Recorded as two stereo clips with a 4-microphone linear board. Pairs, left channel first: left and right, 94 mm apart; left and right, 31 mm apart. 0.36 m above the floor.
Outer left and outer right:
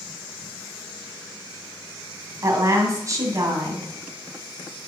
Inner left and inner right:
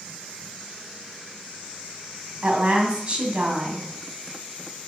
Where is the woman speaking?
35° right (ahead or behind), 2 m.